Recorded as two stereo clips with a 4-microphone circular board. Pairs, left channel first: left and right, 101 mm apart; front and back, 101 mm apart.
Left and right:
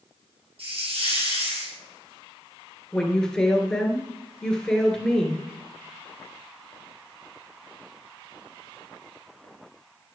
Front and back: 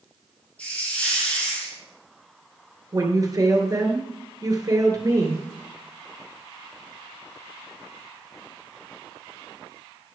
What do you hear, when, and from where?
0.6 s a hiss: 75° right, 3 m
2.9 s a woman speaking: 170° left, 1.8 m